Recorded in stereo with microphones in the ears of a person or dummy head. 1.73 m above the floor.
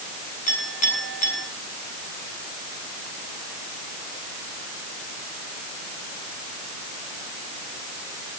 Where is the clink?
45° left (ahead or behind), 9.5 m.